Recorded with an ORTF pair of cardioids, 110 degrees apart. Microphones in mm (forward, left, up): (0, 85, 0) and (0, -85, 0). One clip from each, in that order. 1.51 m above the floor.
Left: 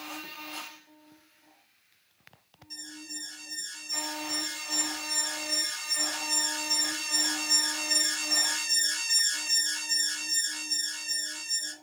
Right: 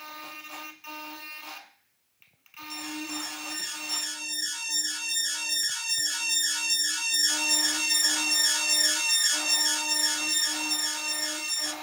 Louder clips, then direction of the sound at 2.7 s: Right 6 dB; 50° right.